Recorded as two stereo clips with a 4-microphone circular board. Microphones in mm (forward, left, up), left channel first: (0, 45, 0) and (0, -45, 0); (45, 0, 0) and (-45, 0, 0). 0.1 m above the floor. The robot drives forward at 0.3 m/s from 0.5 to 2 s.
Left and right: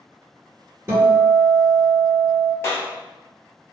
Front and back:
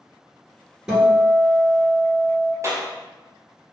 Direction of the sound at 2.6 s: 140° left.